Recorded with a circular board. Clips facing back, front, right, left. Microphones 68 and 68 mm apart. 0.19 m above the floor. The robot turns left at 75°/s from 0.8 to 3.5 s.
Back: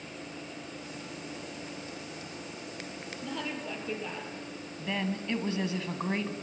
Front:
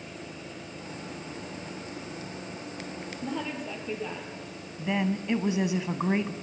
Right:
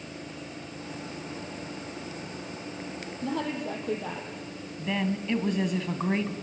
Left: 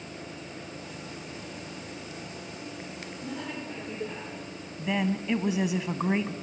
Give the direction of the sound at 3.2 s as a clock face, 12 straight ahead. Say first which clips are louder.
Front 3 dB, right 7 dB; 2 o'clock.